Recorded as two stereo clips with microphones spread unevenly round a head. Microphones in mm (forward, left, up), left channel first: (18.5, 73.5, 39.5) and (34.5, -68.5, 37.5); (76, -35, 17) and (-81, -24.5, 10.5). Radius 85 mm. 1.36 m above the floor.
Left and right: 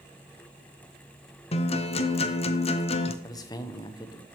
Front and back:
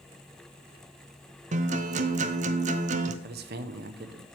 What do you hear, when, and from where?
1.5 s a guitar: 140° left, 0.6 m
3.2 s a man speaking: 160° left, 0.8 m